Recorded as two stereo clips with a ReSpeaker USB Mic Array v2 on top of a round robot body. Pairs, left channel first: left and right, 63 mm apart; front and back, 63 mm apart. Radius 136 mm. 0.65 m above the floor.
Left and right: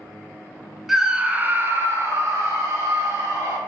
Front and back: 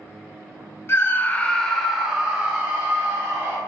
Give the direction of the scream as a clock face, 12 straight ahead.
12 o'clock.